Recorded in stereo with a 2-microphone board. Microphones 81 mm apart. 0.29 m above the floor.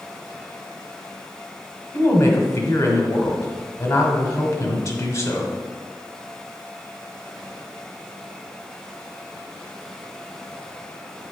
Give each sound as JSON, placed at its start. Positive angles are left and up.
{"t": 1.9, "sound": "a woman speaking", "side_deg": 40, "distance_m": 1.4}